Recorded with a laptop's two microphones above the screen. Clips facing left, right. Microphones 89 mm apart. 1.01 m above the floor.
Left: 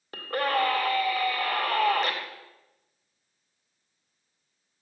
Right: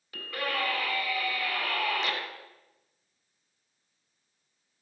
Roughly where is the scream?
Left.